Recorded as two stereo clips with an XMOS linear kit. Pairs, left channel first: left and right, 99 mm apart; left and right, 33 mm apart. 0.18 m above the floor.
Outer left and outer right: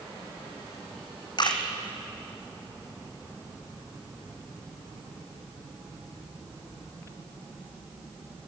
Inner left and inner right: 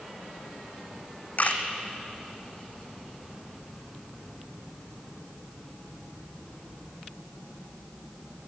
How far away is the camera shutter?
About 1.9 m.